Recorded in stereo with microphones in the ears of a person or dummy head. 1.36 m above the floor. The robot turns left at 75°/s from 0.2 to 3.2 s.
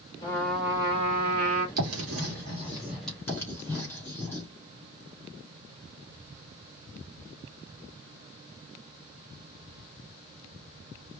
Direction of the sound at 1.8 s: 80° right.